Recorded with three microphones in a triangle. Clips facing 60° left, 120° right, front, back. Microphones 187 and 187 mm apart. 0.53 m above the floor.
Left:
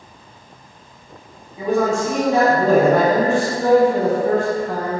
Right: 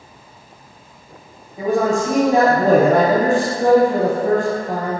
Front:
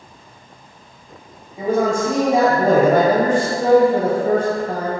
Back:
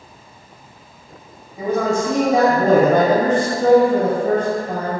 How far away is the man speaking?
About 1.8 m.